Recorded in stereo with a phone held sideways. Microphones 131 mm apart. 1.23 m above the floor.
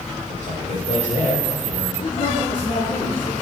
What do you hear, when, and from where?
0.3 s a man speaking: 75° left (ahead or behind), 4.5 m; by 1.9 s 85° left, 4.5 m
2.0 s a woman speaking: 45° left (ahead or behind), 3.5 m